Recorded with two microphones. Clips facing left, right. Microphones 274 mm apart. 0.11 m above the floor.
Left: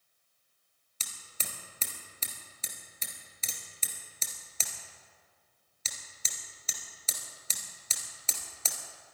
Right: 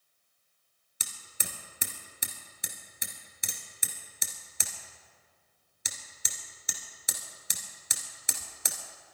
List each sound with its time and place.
1.0 s hammering: 15° right (ahead or behind), 1.7 m